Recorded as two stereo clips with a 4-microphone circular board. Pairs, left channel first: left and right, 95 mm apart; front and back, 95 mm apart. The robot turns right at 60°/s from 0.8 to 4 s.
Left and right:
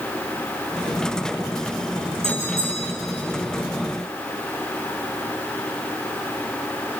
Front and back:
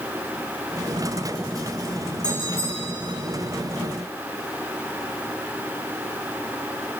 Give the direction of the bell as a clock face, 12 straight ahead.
3 o'clock.